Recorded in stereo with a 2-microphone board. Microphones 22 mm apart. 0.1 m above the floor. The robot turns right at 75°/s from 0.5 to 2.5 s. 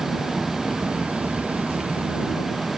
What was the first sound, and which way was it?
An engine running, 160° right.